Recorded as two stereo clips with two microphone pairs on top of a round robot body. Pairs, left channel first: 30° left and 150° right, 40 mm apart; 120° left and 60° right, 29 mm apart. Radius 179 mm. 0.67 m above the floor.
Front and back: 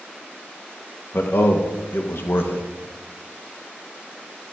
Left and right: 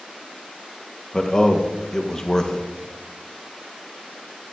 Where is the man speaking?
50° left, 1.0 m.